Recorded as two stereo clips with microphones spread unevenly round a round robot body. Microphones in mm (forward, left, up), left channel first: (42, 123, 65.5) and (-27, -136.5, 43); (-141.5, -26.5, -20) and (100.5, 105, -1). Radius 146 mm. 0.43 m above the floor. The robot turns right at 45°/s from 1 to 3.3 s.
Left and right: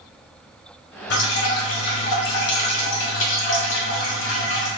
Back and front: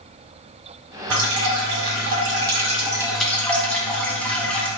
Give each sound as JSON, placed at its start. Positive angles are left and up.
{"t": 1.1, "sound": "dripping", "azimuth_deg": 25, "distance_m": 1.4}